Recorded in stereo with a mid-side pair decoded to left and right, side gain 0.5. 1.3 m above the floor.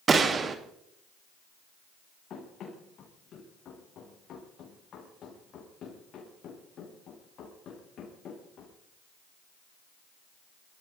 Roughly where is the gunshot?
Ahead right.